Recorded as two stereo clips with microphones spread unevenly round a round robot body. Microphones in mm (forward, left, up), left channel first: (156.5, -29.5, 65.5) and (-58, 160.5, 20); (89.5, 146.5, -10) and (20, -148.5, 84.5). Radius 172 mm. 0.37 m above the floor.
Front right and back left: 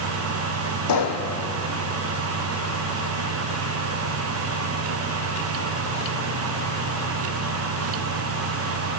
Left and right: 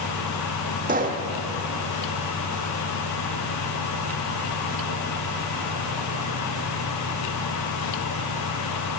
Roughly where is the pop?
Ahead right.